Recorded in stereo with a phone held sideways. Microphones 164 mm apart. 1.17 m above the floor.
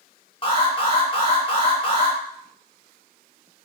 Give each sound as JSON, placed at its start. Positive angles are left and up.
{"t": 0.4, "sound": "an alarm", "side_deg": 35, "distance_m": 0.9}